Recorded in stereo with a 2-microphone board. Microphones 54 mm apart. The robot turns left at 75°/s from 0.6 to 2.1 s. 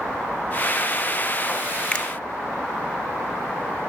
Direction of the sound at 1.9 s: 25° left (ahead or behind).